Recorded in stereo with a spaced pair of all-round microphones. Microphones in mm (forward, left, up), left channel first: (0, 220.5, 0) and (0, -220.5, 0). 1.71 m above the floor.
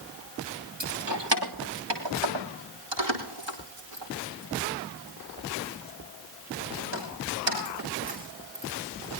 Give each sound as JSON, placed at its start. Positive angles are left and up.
{"t": 0.8, "sound": "keys jangling", "side_deg": -70, "distance_m": 2.5}